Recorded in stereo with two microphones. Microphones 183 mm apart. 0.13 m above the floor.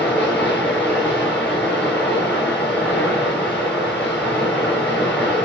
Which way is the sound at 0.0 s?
10° left (ahead or behind).